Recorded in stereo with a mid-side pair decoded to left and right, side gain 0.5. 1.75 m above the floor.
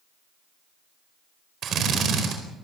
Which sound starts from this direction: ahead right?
A drill, at 1.6 s.